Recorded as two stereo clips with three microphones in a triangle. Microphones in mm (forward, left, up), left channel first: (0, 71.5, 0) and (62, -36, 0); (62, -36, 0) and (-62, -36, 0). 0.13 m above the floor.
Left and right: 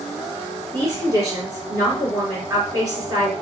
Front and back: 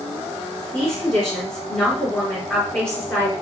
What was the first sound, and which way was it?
A woman speaking, 80° right.